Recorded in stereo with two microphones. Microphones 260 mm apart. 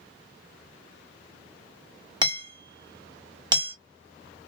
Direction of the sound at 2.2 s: 15° right (ahead or behind).